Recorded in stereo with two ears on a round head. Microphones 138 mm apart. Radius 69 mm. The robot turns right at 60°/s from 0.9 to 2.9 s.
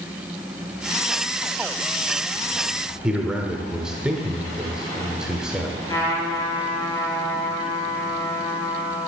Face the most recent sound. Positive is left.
turn(degrees=25)  # may be behind; listen again after turning